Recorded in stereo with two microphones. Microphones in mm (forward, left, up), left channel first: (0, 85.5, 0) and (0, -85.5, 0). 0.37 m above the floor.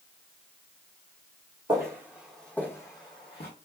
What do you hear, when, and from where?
1.7 s footsteps: 20° right (ahead or behind), 0.9 m; by 3.5 s 35° left (ahead or behind), 1.1 m